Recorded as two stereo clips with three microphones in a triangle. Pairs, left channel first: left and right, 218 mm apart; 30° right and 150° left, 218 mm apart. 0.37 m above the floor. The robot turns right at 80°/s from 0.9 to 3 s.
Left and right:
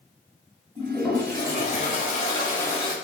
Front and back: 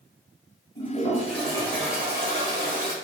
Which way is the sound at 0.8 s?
15° right.